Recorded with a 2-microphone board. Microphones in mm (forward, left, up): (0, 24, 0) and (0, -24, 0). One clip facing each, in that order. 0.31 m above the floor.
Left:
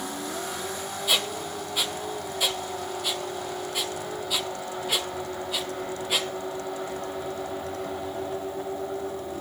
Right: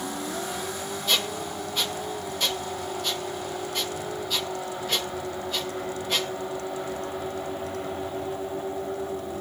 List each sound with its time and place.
1.1 s a squeak: 5° left (ahead or behind), 0.7 m